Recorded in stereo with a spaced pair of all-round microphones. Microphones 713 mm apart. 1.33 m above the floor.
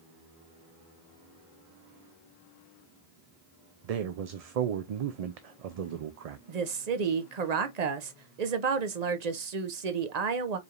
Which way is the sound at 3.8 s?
60° right (ahead or behind).